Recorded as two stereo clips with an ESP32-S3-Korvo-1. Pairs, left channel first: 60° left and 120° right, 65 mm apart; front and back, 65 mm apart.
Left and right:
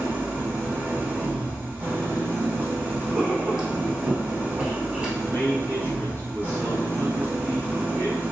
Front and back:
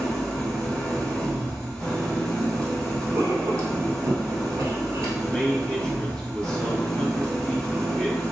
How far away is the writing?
About 1.3 m.